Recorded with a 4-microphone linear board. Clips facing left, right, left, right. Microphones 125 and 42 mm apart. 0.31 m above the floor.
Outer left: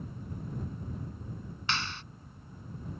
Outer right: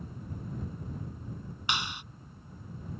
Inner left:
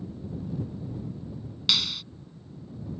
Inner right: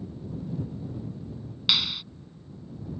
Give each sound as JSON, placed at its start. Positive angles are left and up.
{"t": 1.7, "sound": "a clap", "side_deg": -15}